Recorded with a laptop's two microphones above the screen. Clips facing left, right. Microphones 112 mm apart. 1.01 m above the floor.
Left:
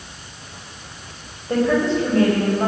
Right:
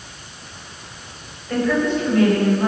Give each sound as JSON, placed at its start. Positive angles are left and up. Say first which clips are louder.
{"t": 1.5, "sound": "a woman speaking", "louder": "left 1 dB", "side_deg": 25, "distance_m": 4.0}